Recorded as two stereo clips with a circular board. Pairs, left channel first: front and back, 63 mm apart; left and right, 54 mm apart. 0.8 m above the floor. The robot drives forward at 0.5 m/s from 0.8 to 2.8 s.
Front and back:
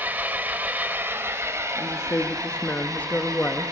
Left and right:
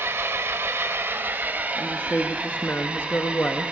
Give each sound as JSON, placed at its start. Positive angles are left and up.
{"t": 0.0, "sound": "an engine running", "azimuth_deg": -125, "distance_m": 0.9}
{"t": 1.8, "sound": "a woman speaking", "azimuth_deg": 30, "distance_m": 1.2}